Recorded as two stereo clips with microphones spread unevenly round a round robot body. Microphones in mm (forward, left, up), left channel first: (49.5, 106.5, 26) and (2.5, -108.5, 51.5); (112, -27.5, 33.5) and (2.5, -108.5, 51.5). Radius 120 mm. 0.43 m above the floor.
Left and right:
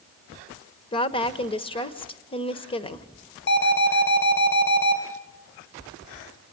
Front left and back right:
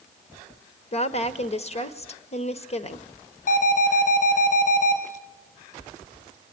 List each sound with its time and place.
0.9 s a woman speaking: 20° left, 1.4 m
3.5 s an alarm: 45° left, 5 m